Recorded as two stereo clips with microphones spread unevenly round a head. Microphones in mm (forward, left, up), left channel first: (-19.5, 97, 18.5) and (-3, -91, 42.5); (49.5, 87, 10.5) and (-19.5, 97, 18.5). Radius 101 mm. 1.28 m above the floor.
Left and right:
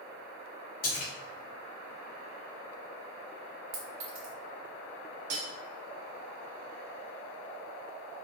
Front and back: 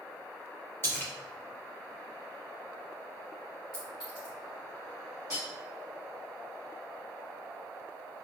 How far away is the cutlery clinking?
About 1.0 m.